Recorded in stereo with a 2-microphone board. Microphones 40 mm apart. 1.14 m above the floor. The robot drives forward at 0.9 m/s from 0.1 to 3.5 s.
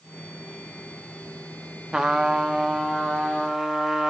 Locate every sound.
1.9 s a trumpet: 20° right (ahead or behind), 0.6 m; by 4.1 s 10° right (ahead or behind), 1.4 m